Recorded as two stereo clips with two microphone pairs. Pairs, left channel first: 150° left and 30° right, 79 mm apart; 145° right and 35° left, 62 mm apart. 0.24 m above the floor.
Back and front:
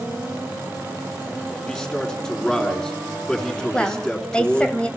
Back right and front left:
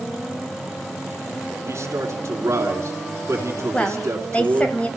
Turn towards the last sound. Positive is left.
turn(degrees=-160)